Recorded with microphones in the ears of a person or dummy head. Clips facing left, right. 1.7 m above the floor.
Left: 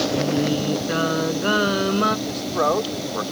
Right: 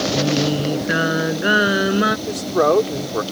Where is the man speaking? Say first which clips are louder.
Right 5 dB; 35° right (ahead or behind).